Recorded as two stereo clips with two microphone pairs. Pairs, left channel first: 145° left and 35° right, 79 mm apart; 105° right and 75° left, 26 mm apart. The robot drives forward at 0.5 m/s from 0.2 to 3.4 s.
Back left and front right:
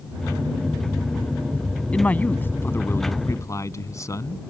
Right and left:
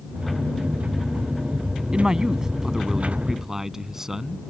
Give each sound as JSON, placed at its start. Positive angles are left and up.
{"t": 1.9, "sound": "a man speaking", "azimuth_deg": 85}